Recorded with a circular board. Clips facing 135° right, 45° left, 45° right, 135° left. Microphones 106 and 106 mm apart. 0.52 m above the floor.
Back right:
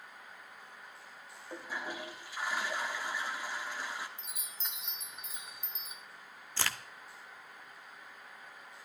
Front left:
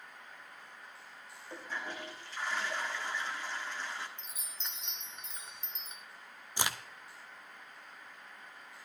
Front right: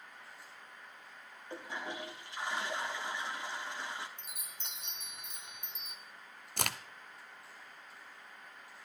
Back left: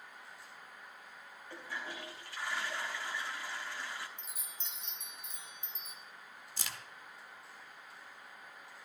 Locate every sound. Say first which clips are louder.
1.5 s a toilet flushing: back right 1 dB, front right 3 dB; 70° right, 1.2 m
4.2 s a chime: back right 1 dB, even; 50° right, 1.1 m
6.6 s a crack: front left 1 dB, front right 9 dB; 30° right, 0.5 m